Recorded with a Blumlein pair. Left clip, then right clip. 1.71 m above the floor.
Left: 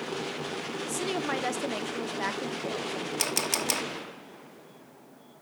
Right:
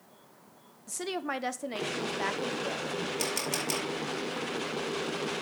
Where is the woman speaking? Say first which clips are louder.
Left 2 dB; 5° left, 0.5 m.